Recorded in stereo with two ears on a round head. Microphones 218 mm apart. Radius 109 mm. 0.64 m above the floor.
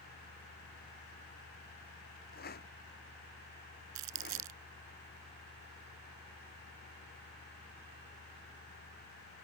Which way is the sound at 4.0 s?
80° right.